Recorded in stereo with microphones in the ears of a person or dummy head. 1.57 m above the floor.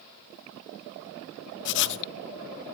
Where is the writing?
60° left (ahead or behind), 0.7 m.